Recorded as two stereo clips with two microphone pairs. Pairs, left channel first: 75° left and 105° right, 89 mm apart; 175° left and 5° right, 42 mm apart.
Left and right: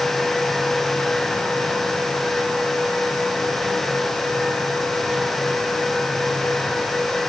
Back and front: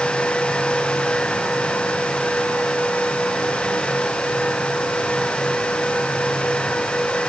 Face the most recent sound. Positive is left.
No sound to turn to.